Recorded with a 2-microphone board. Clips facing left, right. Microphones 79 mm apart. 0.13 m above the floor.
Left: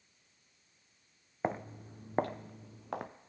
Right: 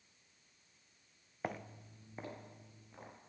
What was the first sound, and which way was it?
Footsteps, 25° left (ahead or behind).